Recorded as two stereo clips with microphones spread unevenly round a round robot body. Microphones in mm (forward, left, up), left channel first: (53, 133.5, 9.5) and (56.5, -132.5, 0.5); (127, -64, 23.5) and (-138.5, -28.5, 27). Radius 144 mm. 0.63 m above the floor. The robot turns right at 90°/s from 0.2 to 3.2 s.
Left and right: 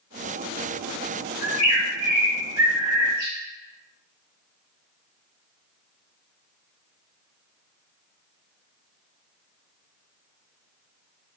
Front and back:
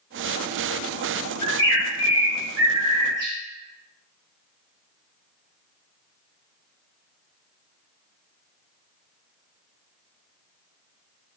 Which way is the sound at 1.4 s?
145° left.